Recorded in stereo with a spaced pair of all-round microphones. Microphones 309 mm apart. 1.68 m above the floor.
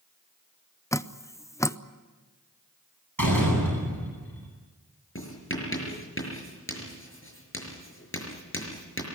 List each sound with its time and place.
0.9 s dripping: 10° left (ahead or behind), 0.6 m
3.2 s a door slam: 85° right, 9.5 m
5.2 s writing: 40° left (ahead or behind), 5.5 m